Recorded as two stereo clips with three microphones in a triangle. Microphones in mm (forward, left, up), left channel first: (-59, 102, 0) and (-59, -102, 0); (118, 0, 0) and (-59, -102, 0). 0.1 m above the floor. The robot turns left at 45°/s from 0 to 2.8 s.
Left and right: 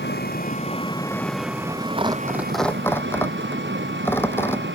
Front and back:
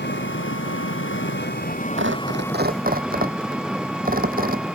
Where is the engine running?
65° left; by 4.8 s 65° right.